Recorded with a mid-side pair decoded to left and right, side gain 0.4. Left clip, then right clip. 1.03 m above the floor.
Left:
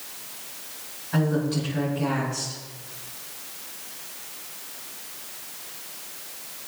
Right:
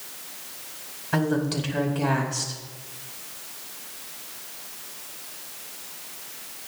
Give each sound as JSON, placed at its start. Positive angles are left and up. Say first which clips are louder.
{"t": 1.1, "sound": "a woman speaking", "louder": "right 1 dB", "azimuth_deg": -65, "distance_m": 5.0}